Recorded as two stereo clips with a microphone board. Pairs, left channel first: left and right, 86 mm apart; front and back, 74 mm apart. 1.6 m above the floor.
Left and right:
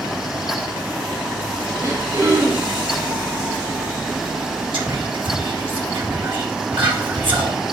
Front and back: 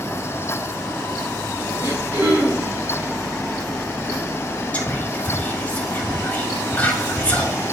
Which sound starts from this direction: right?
Whispering, at 4.7 s.